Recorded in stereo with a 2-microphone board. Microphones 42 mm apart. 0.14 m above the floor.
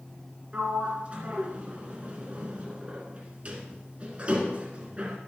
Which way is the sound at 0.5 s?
30° right (ahead or behind).